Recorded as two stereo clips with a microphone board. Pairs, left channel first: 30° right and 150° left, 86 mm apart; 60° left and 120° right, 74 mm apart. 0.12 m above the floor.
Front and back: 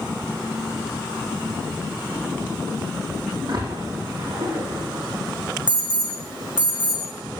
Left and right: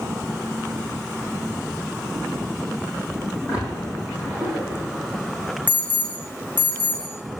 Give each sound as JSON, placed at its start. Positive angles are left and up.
{"t": 3.5, "sound": "a splash", "azimuth_deg": 170, "distance_m": 6.5}
{"t": 5.7, "sound": "an alarm", "azimuth_deg": 130, "distance_m": 6.5}